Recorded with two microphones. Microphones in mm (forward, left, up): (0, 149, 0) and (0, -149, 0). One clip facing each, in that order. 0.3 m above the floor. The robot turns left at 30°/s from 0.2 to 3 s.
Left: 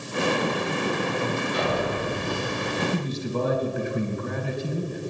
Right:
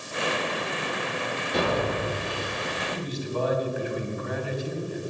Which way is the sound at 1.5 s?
70° right (ahead or behind).